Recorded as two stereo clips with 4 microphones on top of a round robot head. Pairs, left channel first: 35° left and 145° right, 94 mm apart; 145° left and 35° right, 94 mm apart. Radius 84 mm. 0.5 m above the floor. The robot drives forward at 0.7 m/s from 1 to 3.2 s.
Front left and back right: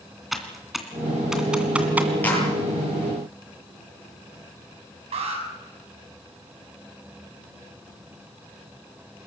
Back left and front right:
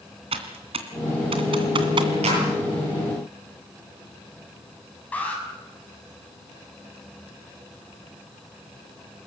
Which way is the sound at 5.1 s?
140° right.